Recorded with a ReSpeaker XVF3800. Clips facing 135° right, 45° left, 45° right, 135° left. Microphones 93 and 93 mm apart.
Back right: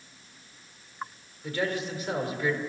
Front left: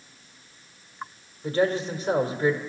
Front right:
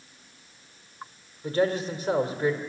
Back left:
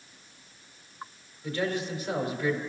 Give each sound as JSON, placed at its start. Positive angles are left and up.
{"t": 1.4, "sound": "a man speaking", "azimuth_deg": -5, "distance_m": 1.9}